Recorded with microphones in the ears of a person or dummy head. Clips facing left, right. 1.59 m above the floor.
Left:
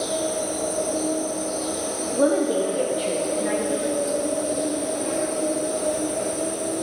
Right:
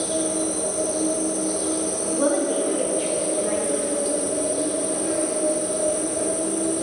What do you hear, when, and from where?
0.0 s an insect: 55° right (ahead or behind), 2.5 m
2.1 s a woman speaking: 10° left (ahead or behind), 0.6 m